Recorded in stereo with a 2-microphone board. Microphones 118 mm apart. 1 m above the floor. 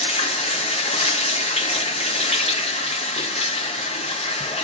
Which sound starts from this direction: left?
Running water, at 0.0 s.